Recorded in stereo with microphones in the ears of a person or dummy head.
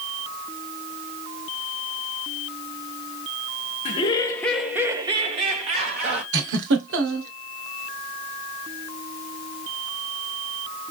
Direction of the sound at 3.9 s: 35° left (ahead or behind).